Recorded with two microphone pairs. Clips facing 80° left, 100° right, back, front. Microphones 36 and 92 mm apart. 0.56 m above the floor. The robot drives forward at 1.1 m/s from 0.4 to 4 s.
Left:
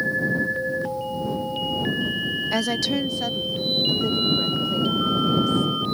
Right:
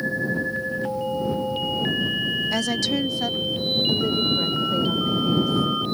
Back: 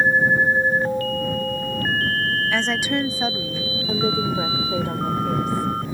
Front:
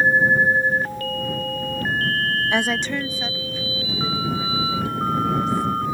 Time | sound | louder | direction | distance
2.5 | a woman speaking | even, even | 10° left | ?